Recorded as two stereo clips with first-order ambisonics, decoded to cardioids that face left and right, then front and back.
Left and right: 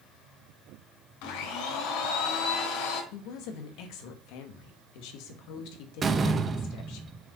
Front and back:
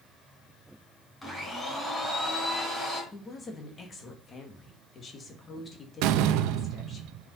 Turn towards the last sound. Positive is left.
turn(degrees=-160)